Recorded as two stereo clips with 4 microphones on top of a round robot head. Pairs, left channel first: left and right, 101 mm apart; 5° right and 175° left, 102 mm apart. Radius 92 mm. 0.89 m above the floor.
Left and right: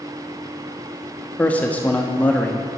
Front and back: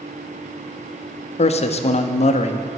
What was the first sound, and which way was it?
A man speaking, 10° left.